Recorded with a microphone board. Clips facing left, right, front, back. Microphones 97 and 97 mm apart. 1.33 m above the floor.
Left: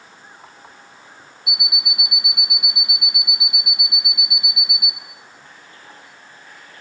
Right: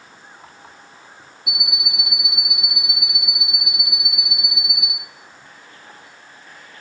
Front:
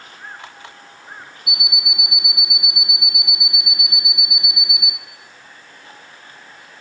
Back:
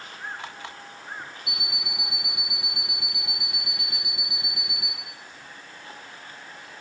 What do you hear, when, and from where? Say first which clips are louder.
1.5 s an alarm clock: even, front 5 dB; 65° right, 1.2 m